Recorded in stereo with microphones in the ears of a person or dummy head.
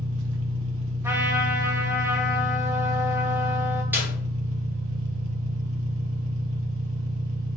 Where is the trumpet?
20° right (ahead or behind), 1.4 m.